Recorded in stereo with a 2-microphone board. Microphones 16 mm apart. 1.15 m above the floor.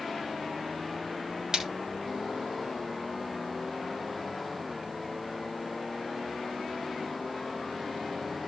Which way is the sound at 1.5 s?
55° right (ahead or behind).